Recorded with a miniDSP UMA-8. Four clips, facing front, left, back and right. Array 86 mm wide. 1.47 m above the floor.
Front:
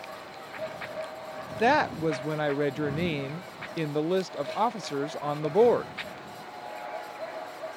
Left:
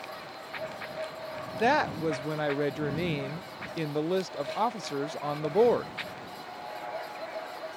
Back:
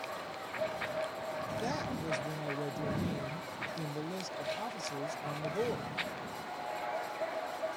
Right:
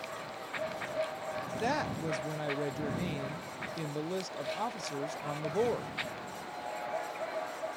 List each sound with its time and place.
1.6 s a woman speaking: 30° left